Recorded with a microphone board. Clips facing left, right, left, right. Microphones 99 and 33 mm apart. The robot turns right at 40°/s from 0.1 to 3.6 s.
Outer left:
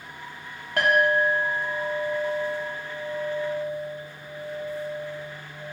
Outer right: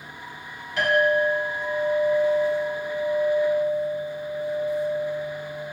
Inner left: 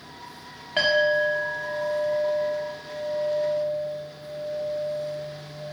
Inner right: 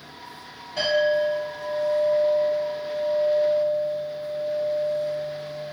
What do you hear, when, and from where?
0.8 s a clink: 60° left, 1.1 m; by 5.6 s 175° left, 1.1 m